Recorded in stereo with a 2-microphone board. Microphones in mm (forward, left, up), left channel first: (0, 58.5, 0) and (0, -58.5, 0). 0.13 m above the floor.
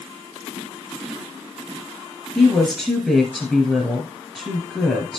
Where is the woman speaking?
5° right (ahead or behind), 2 m.